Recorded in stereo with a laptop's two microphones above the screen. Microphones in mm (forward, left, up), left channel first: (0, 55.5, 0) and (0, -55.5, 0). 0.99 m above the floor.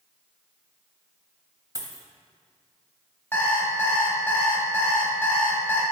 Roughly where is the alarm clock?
Centre.